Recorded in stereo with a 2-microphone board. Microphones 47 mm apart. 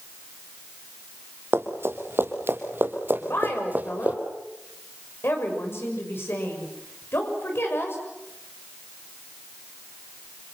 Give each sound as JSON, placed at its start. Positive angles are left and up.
{"t": 1.5, "sound": "running footsteps", "side_deg": -65, "distance_m": 3.5}
{"t": 3.2, "sound": "a woman speaking", "side_deg": 55, "distance_m": 6.5}